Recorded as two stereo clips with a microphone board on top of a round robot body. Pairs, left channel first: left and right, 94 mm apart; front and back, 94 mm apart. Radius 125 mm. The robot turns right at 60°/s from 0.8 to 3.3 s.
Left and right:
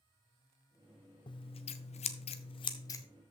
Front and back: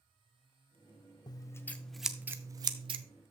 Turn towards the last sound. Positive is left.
turn(degrees=170)